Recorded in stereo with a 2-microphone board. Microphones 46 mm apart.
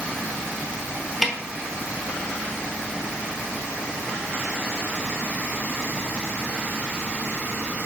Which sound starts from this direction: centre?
A snare drum, at 1.2 s.